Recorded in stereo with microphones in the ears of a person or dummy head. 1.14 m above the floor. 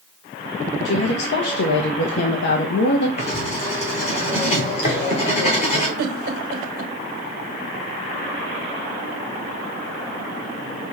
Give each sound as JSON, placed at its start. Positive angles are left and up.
{"t": 0.8, "sound": "a woman speaking", "side_deg": 65, "distance_m": 0.7}
{"t": 3.2, "sound": "writing", "side_deg": 30, "distance_m": 1.1}
{"t": 6.0, "sound": "a giggle", "side_deg": -60, "distance_m": 1.0}